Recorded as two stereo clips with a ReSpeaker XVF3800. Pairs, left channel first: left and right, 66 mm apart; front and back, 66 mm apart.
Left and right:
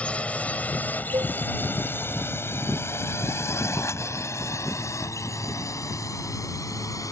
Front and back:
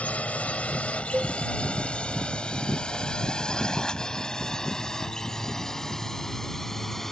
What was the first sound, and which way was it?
A drone, 45° left.